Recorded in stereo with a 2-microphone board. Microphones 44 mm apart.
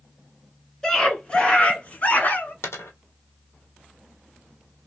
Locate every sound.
0.8 s a scream: 15° left (ahead or behind), 1.5 m; by 2.5 s 45° left (ahead or behind), 1.5 m
2.6 s a dropped coin: 80° left, 1.3 m